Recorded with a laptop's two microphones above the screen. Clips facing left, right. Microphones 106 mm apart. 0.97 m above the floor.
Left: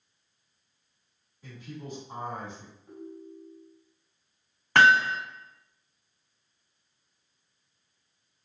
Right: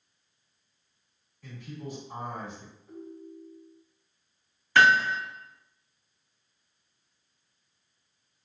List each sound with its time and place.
1.4 s a man speaking: 20° left (ahead or behind), 1.6 m
2.9 s a ringtone: 75° left (ahead or behind), 1.3 m
4.8 s hammering: 55° left (ahead or behind), 1.8 m